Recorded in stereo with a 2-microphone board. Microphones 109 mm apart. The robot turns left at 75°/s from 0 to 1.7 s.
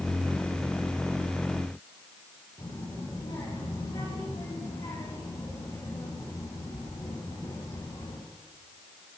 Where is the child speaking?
35° left (ahead or behind), 4 m.